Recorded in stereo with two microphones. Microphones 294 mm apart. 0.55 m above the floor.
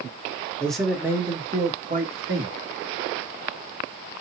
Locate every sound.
0.6 s a man speaking: 5° left (ahead or behind), 1.4 m; by 2.5 s 40° right (ahead or behind), 1.4 m